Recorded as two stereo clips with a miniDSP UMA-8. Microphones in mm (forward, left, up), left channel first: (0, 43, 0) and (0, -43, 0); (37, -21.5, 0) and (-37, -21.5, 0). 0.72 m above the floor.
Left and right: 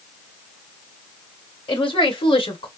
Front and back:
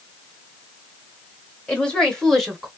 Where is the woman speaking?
75° left, 2 m; by 2.7 s 95° left, 1.2 m.